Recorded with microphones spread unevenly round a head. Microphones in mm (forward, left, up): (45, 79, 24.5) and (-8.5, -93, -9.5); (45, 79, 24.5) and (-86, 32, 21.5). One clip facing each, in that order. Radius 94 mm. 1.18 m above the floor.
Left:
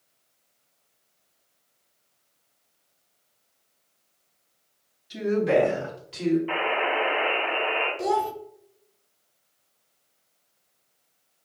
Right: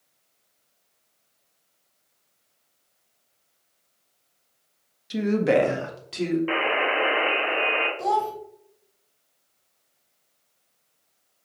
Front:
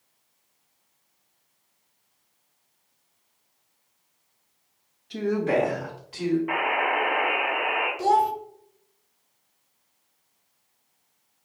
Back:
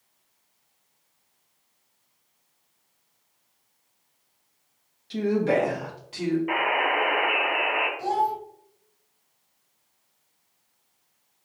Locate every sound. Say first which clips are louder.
5.1 s a woman speaking: right 1 dB, back 1 dB; 95° right, 1.5 m; by 6.4 s 90° right, 3 m
6.5 s a buzzer: right 1 dB, even; 90° right, 2 m
8.0 s a child speaking: left 1 dB, front 5 dB; 10° left, 1.1 m